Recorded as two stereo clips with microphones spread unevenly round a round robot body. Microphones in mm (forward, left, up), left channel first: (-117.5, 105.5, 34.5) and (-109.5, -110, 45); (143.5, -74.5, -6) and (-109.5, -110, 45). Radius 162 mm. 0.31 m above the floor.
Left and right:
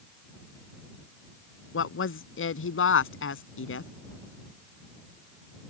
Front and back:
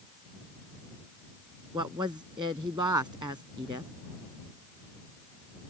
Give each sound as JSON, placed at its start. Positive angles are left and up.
{"t": 1.7, "sound": "a woman speaking", "azimuth_deg": 110}